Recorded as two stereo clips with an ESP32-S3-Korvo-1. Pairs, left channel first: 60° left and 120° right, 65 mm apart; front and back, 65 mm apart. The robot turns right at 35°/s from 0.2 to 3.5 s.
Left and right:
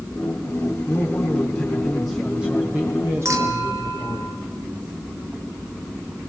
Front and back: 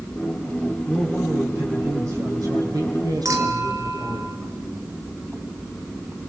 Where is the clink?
155° right, 3 m; by 4.4 s 150° right, 3 m.